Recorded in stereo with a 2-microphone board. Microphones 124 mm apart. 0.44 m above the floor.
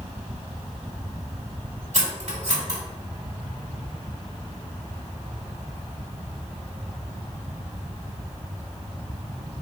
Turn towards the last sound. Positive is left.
turn(degrees=-70)  # may be behind; listen again after turning